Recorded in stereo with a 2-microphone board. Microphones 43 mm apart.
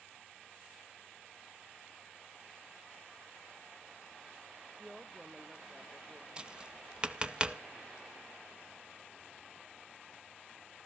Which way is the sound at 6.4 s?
20° right (ahead or behind).